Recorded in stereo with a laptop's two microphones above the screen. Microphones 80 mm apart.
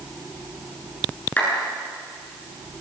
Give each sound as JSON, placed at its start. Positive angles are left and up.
{"t": 1.4, "sound": "a clap", "side_deg": 20, "distance_m": 9.5}